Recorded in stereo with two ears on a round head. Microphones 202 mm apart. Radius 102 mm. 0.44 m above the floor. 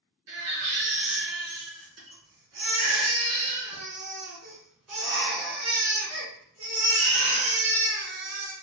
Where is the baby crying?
70° right (ahead or behind), 2 m.